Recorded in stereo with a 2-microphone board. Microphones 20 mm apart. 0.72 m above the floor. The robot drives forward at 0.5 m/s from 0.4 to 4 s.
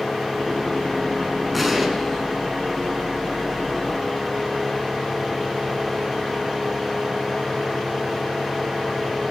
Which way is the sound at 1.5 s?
5° right (ahead or behind).